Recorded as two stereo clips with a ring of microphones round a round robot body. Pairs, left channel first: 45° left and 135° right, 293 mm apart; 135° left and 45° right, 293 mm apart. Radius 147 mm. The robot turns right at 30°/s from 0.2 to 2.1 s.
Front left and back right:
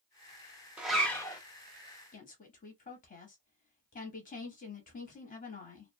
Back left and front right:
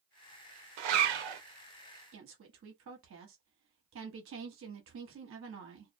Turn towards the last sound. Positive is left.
turn(degrees=-10)